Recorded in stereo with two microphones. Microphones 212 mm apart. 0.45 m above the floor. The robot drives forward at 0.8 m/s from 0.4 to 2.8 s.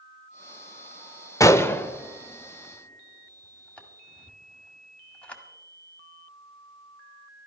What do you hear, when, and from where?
1.4 s a gunshot: 15° left (ahead or behind), 0.6 m; by 5.4 s 5° left (ahead or behind), 1.6 m